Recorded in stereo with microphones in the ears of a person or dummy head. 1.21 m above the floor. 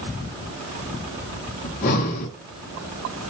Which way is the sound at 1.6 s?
45° left (ahead or behind).